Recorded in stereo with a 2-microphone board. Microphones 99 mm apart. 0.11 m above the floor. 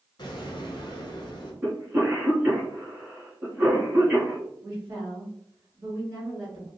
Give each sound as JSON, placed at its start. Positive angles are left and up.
{"t": 0.2, "sound": "an explosion", "side_deg": 45, "distance_m": 1.1}
{"t": 1.6, "sound": "a cough", "side_deg": -20, "distance_m": 1.2}
{"t": 4.6, "sound": "a woman speaking", "side_deg": -30, "distance_m": 1.7}